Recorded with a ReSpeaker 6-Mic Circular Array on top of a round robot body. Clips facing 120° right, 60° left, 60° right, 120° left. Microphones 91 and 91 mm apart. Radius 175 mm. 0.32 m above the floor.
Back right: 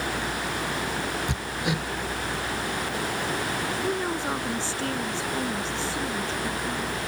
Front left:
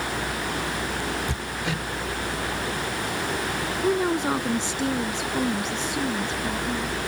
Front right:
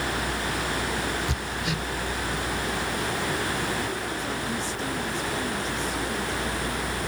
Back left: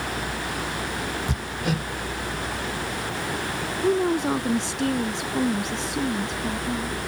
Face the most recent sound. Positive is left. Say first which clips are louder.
# front left 8 dB, back left 9 dB
turn(degrees=135)